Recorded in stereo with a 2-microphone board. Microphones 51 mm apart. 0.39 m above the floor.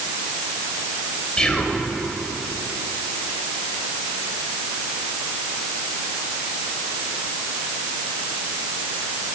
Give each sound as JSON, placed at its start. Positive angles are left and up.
{"t": 1.4, "sound": "whispering", "side_deg": 10, "distance_m": 1.8}